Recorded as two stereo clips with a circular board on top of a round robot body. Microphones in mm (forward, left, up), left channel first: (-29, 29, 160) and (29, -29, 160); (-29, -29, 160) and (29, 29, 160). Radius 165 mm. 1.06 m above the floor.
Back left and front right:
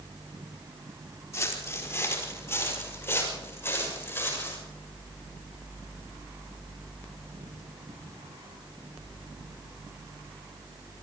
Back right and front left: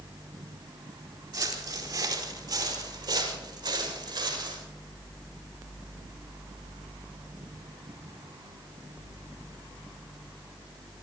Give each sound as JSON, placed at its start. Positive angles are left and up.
{"t": 1.3, "sound": "footsteps", "azimuth_deg": 80, "distance_m": 4.0}